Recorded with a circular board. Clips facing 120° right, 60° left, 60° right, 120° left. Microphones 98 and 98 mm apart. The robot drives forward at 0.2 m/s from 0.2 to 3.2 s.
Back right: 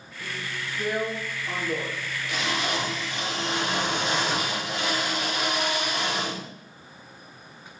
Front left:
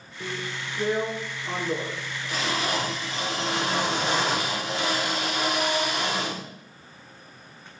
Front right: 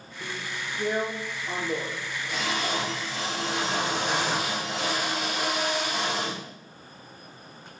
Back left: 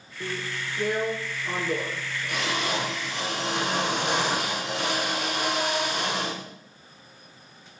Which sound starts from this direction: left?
A drill, at 0.2 s.